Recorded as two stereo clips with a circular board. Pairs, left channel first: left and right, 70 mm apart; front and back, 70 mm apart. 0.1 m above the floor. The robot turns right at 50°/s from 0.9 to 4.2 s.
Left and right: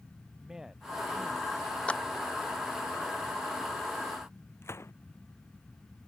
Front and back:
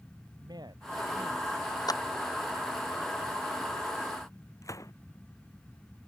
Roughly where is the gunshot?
Ahead left.